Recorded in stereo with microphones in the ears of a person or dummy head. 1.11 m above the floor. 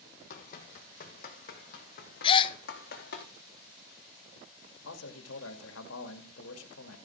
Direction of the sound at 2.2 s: 30° left (ahead or behind).